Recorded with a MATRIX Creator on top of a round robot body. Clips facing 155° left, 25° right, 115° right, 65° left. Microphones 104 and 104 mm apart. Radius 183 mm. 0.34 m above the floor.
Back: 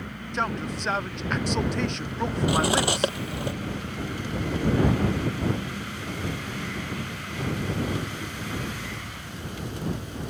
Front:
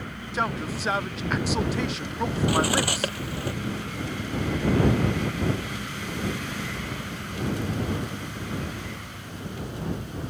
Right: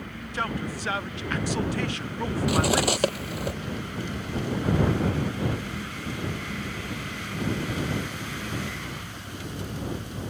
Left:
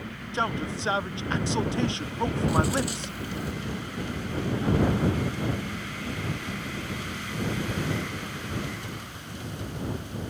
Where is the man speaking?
60° left.